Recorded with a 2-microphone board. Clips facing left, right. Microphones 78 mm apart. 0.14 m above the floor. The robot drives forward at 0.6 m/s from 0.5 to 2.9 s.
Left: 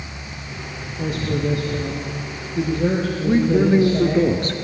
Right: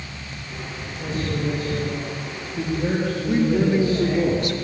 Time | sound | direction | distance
1.0 | a man speaking | 70° left (ahead or behind) | 6 m
3.2 | a man speaking | 35° left (ahead or behind) | 2.5 m